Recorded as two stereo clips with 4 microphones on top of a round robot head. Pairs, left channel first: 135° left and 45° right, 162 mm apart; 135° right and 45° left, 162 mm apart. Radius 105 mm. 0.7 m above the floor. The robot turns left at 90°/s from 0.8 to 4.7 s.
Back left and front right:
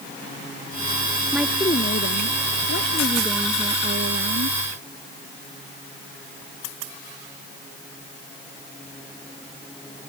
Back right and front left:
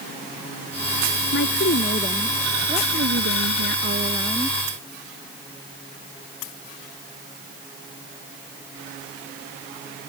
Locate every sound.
1.3 s a woman speaking: 125° right; by 4.5 s 55° right